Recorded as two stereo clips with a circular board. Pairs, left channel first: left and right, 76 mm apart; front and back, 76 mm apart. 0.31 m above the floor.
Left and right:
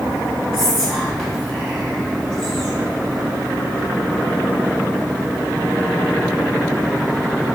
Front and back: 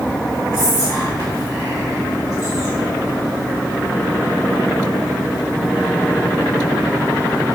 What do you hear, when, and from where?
0.5 s whispering: 10° left, 1.9 m